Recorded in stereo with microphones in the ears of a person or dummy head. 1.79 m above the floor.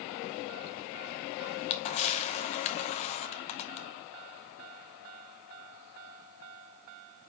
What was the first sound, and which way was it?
A camera shutter, 40° left (ahead or behind).